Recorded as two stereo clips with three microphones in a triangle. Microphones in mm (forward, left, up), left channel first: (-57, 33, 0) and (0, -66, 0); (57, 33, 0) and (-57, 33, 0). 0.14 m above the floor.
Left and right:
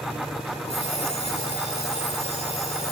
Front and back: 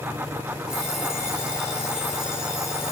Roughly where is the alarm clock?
Left.